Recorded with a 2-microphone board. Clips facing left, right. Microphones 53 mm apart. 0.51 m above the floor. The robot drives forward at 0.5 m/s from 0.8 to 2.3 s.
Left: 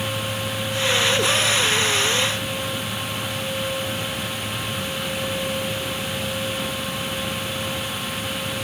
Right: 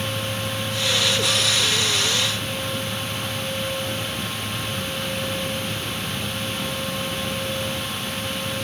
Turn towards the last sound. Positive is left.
No sound to turn to.